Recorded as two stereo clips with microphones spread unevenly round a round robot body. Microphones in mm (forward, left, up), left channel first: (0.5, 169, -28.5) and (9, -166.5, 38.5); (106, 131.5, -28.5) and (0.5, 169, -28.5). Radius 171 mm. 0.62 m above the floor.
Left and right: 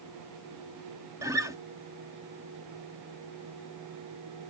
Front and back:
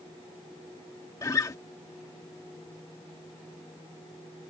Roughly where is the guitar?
Ahead.